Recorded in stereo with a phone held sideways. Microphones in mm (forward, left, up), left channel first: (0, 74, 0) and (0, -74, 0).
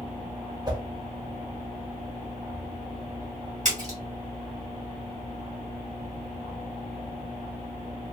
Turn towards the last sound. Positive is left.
turn(degrees=-55)  # may be behind; listen again after turning